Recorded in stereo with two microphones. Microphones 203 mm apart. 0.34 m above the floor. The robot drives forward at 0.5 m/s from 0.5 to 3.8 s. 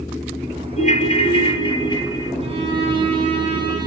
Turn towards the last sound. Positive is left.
turn(degrees=-25)  # may be behind; listen again after turning